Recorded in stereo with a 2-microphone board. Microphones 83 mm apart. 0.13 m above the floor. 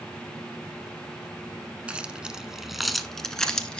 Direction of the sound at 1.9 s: 15° right (ahead or behind).